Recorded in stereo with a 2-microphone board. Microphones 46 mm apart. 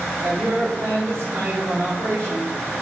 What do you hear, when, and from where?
0.2 s a woman speaking: 70° right (ahead or behind), 4.5 m